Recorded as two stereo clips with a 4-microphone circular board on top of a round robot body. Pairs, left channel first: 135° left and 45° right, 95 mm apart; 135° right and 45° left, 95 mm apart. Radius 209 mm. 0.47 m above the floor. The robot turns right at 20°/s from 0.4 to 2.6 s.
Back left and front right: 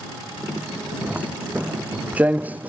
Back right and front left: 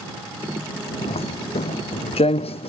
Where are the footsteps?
125° right; by 2.7 s 120° right.